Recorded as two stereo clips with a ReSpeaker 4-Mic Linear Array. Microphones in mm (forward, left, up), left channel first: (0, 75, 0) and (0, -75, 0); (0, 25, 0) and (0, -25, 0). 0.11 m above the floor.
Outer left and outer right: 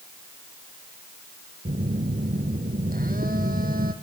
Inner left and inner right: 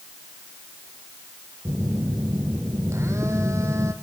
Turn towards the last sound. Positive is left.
turn(degrees=-75)  # may be behind; listen again after turning